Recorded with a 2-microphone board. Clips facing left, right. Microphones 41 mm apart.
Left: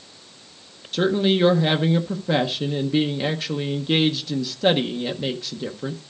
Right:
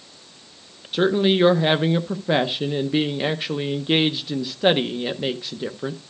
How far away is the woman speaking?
About 0.7 m.